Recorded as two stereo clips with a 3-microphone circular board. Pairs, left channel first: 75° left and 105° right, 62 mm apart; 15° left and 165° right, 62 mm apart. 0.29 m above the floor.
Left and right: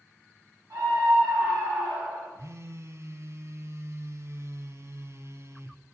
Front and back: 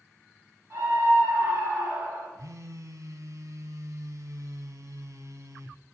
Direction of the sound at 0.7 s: 125° right.